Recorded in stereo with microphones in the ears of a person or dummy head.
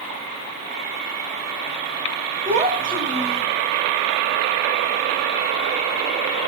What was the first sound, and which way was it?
A child speaking, 30° right (ahead or behind).